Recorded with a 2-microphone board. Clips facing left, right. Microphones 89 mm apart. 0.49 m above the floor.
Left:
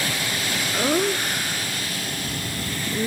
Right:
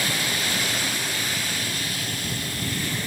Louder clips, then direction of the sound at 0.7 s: Left 8 dB; 70° left (ahead or behind).